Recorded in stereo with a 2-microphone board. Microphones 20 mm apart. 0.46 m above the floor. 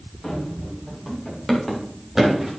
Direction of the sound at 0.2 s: 20° left (ahead or behind).